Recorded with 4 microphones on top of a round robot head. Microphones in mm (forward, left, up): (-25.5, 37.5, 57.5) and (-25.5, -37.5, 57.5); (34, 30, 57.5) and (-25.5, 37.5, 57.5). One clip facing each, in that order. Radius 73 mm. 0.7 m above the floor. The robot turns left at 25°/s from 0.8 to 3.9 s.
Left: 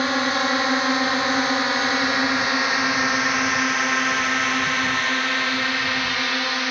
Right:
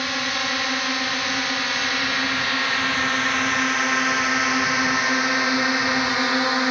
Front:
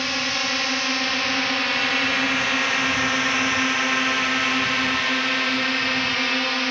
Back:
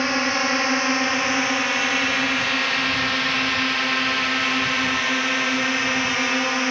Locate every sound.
0.0 s a drone: 125° left; by 6.7 s 120° right